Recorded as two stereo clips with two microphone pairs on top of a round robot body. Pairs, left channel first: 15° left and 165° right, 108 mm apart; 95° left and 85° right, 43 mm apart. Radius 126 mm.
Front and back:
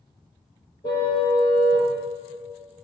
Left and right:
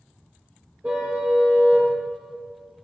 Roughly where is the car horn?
Ahead right.